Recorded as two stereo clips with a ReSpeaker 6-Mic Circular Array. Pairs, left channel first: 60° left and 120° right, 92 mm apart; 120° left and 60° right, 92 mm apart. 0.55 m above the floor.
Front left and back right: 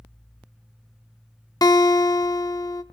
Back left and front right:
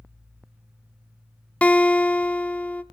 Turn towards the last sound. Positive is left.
turn(degrees=50)